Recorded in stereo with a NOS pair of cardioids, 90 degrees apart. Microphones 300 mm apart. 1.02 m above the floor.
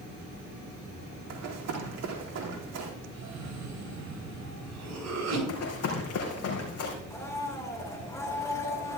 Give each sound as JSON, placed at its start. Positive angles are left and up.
{"t": 1.3, "sound": "running footsteps", "azimuth_deg": -60, "distance_m": 4.0}
{"t": 3.1, "sound": "a cough", "azimuth_deg": -60, "distance_m": 7.5}
{"t": 5.5, "sound": "running footsteps", "azimuth_deg": 55, "distance_m": 4.0}
{"t": 7.1, "sound": "a blender", "azimuth_deg": 10, "distance_m": 3.0}